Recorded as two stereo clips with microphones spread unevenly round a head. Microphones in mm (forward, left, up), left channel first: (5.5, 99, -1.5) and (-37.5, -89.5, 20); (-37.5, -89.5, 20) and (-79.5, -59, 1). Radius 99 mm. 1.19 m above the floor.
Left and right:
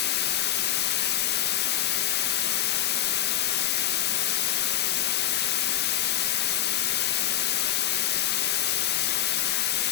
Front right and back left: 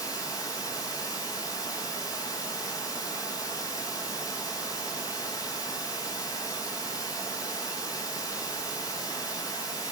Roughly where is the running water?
Ahead left.